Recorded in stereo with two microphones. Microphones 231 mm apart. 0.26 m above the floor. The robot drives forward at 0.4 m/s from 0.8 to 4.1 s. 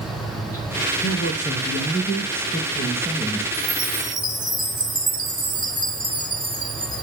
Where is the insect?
75° left (ahead or behind), 3.5 m.